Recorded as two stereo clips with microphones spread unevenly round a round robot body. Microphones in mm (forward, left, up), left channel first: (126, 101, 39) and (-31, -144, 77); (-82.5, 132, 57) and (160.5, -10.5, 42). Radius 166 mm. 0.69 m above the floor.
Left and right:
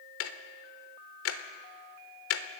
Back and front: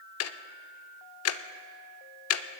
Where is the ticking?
110° left, 0.7 m.